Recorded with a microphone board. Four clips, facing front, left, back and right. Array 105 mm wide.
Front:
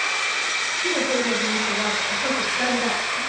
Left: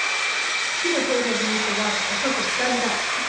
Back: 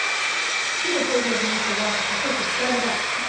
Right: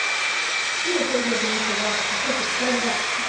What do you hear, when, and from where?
0.8 s a woman speaking: 75° left, 1.4 m